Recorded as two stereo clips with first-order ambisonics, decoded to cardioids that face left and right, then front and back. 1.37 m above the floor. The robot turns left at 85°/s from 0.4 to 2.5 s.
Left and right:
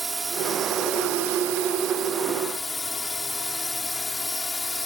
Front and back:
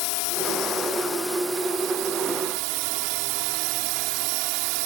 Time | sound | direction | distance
0.0 | a drone | 10° right | ?